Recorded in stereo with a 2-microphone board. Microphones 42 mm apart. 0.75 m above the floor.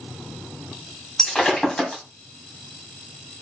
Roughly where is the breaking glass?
Centre.